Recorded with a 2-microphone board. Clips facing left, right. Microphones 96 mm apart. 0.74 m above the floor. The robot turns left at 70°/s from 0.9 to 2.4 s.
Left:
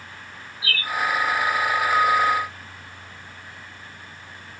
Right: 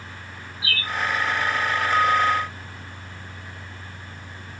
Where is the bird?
30° right (ahead or behind), 1.0 m.